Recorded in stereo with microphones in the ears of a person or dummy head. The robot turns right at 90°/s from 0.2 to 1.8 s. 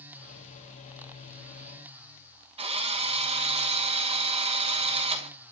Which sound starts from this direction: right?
A drill, at 2.6 s.